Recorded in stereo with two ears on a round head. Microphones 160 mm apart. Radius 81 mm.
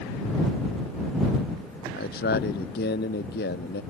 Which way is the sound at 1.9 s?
60° left (ahead or behind).